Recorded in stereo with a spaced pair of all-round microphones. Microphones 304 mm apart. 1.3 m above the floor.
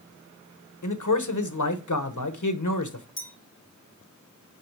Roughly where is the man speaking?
Left.